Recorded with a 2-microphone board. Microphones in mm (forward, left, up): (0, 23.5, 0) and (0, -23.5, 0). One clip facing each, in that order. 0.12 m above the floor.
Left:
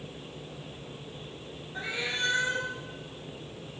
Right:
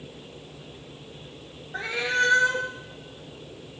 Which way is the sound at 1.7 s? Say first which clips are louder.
Right 8 dB; 85° right.